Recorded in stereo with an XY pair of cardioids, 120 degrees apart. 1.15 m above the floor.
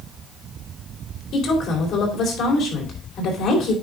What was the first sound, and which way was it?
A woman speaking, 65° left.